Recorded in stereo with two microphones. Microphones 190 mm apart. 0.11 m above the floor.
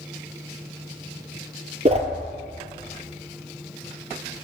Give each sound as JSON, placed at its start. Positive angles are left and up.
{"t": 1.9, "sound": "a whoosh", "side_deg": -35, "distance_m": 0.6}